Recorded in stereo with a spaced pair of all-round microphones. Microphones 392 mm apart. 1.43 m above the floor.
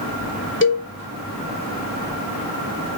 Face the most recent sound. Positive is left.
turn(degrees=30)  # may be behind; listen again after turning